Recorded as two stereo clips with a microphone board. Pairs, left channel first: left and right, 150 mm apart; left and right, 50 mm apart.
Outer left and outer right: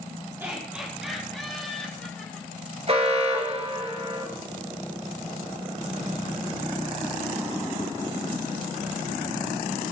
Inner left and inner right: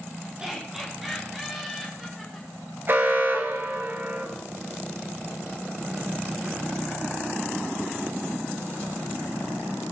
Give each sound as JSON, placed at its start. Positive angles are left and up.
{"t": 0.4, "sound": "laughter", "side_deg": -15, "distance_m": 2.5}
{"t": 2.9, "sound": "an alarm", "side_deg": -45, "distance_m": 3.0}